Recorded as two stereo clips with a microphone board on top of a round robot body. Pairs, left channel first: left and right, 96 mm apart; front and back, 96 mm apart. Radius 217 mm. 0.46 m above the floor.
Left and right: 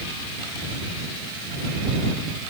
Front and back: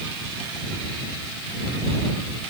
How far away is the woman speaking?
I don't hear a woman speaking.